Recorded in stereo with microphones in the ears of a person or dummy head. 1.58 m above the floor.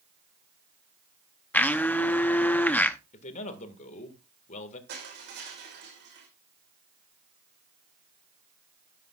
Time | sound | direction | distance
1.5 | a blender | 5° left (ahead or behind) | 0.7 m
3.1 | a man speaking | 45° left (ahead or behind) | 1.8 m
4.9 | crushing | 65° right (ahead or behind) | 4 m